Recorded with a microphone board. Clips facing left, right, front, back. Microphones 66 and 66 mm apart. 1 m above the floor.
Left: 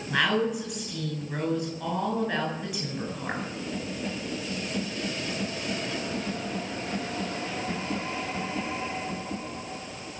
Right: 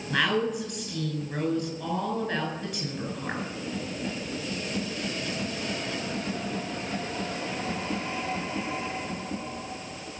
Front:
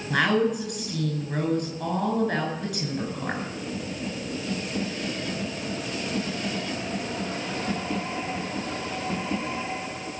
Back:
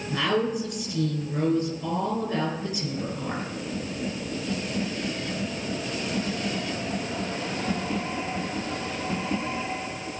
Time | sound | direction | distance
0.1 | a woman speaking | 5° left | 8 m